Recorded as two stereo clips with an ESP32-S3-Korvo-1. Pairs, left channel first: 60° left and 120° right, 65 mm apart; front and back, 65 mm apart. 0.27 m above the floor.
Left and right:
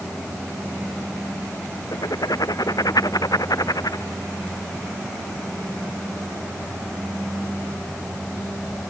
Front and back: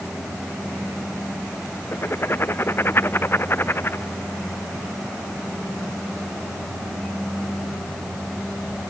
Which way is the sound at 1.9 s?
50° left.